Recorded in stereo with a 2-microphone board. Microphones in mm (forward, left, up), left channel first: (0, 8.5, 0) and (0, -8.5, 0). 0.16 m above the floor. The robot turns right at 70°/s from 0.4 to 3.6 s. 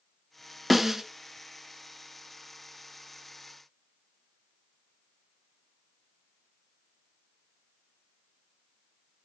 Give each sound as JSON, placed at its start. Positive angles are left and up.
{"t": 0.7, "sound": "a snare drum", "side_deg": -5, "distance_m": 1.4}